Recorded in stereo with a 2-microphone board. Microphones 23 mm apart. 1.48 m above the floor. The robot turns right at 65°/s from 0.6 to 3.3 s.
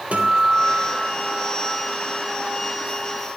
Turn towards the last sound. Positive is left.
turn(degrees=100)